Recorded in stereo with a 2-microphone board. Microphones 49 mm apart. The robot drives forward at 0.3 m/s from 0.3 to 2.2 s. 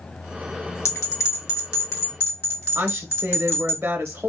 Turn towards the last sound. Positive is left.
turn(degrees=-40)  # may be behind; listen again after turning